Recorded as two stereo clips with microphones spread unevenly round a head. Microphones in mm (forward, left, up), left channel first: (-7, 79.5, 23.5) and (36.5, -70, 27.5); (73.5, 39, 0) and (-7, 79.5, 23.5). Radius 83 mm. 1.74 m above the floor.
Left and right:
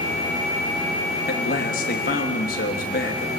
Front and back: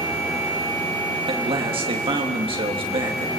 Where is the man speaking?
140° left, 3.5 m.